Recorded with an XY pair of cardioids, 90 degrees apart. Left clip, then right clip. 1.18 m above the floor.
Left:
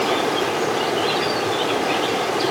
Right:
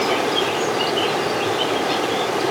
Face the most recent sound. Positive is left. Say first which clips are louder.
# right 1 dB
turn(degrees=-5)